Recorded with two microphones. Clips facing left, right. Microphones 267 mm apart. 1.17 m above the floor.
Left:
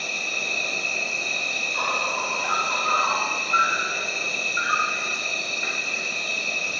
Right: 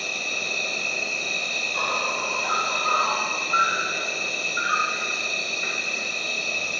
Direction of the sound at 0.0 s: 40° right (ahead or behind).